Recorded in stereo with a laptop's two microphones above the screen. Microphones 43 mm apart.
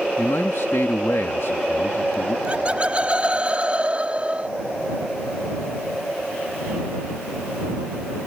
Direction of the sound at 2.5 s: 35° right (ahead or behind).